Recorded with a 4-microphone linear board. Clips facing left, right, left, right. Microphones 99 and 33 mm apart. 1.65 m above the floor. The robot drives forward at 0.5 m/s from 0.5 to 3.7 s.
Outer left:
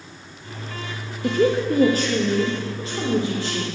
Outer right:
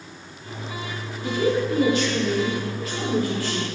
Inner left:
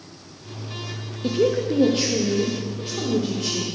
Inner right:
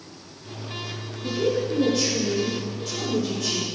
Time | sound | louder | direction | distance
1.2 | a woman speaking | outer left 3 dB, inner left 3 dB | 60° left (ahead or behind) | 0.8 m